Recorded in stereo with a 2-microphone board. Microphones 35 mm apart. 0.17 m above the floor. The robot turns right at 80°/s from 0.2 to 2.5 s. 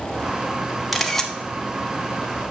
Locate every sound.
0.9 s a camera shutter: 5° right (ahead or behind), 0.8 m; by 1.3 s 10° left (ahead or behind), 0.8 m